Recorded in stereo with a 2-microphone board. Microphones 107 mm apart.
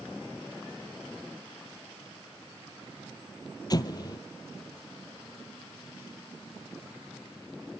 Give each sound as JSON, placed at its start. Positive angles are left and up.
{"t": 3.7, "sound": "an explosion", "side_deg": 40, "distance_m": 0.8}